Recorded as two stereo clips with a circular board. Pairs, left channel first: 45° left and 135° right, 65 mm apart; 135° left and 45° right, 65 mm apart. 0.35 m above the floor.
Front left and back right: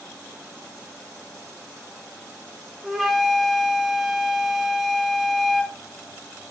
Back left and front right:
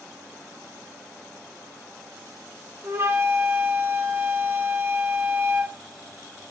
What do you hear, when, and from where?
2.8 s a flute: 50° right, 1.2 m